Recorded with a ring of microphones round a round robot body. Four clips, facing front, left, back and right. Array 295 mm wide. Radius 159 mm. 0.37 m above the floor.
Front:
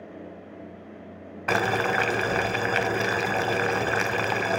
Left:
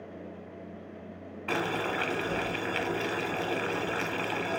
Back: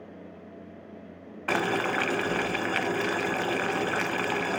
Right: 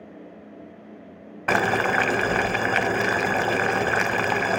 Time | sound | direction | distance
1.5 | boiling | 70° right | 0.6 m